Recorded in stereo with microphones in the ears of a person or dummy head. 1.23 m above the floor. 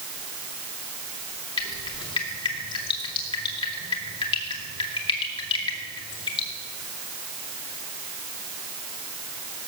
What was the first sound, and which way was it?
Dripping, 30° left (ahead or behind).